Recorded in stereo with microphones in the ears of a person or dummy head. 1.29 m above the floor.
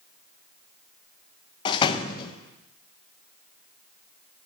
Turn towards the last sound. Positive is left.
turn(degrees=35)  # may be behind; listen again after turning